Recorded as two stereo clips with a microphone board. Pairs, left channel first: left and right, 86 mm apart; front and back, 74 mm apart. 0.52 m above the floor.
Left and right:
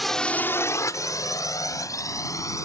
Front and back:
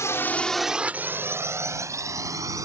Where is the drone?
Straight ahead; by 2.6 s 140° left.